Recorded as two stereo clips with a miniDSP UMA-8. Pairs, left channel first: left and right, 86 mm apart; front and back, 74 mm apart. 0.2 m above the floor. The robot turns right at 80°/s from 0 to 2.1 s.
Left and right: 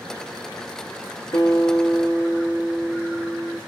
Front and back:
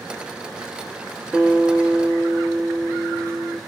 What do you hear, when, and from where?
1.3 s a guitar: 105° left, 1.0 m; by 3.6 s 165° left, 1.0 m